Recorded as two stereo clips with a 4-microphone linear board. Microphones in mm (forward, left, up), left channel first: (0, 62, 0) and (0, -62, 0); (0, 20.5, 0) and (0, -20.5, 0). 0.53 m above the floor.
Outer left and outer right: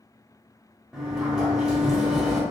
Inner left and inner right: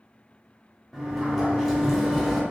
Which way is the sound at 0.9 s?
5° right (ahead or behind).